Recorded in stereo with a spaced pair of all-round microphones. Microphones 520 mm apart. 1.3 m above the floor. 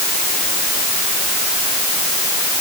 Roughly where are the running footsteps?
I don't hear running footsteps.